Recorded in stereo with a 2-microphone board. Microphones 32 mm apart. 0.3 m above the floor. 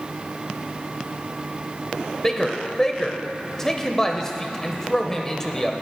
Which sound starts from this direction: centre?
A man speaking, at 2.2 s.